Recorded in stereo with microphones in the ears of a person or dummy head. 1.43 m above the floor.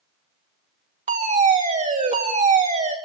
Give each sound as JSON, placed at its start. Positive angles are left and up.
{"t": 1.1, "sound": "a fire alarm", "side_deg": -40, "distance_m": 3.5}